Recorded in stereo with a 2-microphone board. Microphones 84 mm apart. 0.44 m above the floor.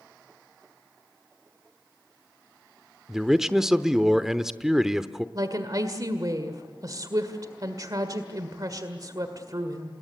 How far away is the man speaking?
About 0.8 m.